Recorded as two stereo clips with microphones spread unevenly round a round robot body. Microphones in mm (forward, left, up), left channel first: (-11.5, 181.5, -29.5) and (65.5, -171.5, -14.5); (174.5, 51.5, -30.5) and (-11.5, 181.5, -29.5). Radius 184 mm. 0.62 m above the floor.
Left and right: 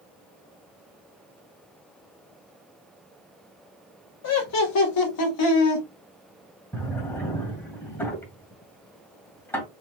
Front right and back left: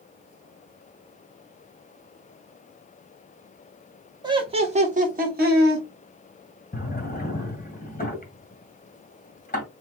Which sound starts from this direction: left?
Laughter, at 4.2 s.